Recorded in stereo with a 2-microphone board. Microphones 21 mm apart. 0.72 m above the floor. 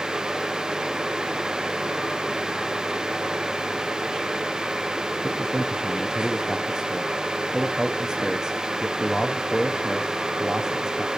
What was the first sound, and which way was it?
A man speaking, 30° right (ahead or behind).